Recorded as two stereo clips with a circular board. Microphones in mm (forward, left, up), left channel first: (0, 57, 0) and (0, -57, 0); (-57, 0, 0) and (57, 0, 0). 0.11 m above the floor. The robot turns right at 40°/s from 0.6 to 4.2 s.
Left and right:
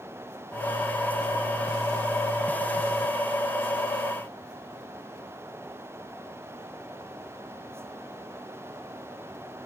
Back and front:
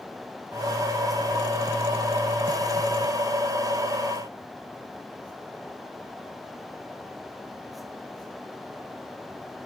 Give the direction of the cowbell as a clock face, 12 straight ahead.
I don't hear a cowbell.